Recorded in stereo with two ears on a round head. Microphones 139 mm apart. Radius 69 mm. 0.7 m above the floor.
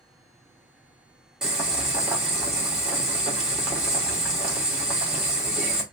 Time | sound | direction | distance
1.4 | boiling | 5° right (ahead or behind) | 1.3 m